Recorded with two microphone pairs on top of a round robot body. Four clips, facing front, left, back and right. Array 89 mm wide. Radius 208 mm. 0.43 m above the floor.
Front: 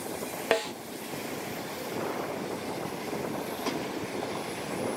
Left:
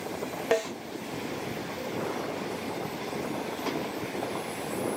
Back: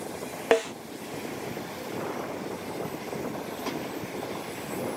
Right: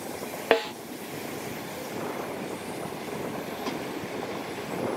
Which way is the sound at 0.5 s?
115° right.